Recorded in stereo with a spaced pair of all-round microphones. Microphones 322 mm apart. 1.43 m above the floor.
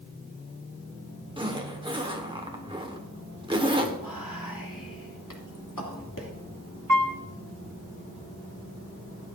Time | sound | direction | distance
1.4 | a zipper | 15° right (ahead or behind) | 1.3 m
4.0 | whispering | 80° left | 2.5 m
6.9 | a piano | 80° right | 2 m